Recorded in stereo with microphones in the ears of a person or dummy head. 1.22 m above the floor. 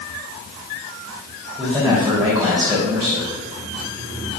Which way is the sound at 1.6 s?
Centre (ahead or behind).